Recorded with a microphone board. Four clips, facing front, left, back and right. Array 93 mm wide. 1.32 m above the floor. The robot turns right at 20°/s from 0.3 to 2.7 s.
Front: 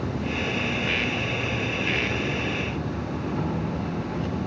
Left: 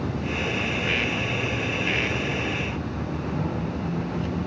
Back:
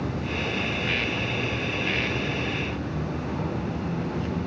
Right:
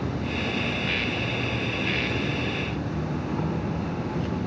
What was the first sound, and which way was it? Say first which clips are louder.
An insect: left 1 dB, front 1 dB; 50° right.